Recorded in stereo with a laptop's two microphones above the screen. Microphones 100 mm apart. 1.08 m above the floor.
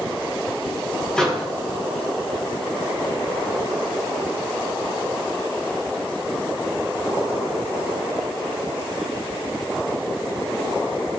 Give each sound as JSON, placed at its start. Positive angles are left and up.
{"t": 1.2, "sound": "a microwave", "side_deg": 5, "distance_m": 0.7}